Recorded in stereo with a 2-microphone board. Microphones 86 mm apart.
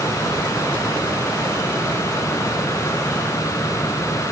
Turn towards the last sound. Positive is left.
No sound to turn to.